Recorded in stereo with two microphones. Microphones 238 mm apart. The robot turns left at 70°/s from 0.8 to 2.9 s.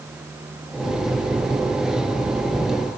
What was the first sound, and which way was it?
Only background noise.